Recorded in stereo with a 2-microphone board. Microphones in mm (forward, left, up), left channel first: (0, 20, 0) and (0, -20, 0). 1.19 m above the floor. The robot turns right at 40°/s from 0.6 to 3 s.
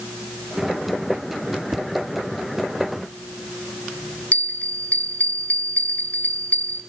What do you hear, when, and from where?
1.7 s tapping: 35° right (ahead or behind), 0.8 m; by 1.9 s 30° right (ahead or behind), 0.8 m
4.3 s a bell: 45° left (ahead or behind), 2.5 m